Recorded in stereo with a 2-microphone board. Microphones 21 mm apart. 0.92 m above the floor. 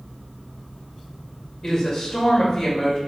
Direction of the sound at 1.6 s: 15° left (ahead or behind).